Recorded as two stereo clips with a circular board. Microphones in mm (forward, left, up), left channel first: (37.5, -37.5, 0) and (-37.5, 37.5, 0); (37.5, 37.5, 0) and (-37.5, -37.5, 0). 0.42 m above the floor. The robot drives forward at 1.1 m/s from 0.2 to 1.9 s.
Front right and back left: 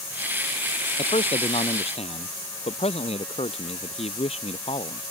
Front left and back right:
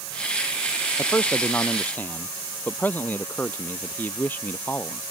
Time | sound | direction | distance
1.0 | a man speaking | 25° right | ?